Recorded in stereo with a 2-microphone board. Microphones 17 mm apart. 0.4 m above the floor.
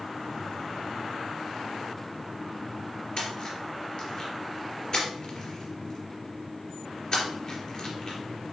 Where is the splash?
50° left (ahead or behind), 2.5 m.